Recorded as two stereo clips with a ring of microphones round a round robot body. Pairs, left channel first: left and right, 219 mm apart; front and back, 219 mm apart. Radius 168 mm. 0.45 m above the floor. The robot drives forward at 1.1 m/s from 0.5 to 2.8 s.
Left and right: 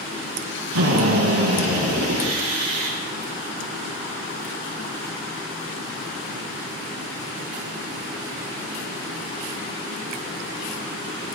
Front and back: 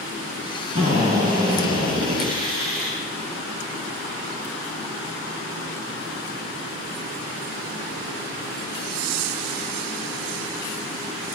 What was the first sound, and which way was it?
A drill, 110° right.